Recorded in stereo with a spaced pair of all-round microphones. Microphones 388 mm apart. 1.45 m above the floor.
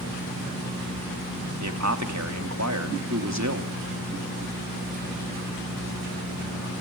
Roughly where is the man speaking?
Right.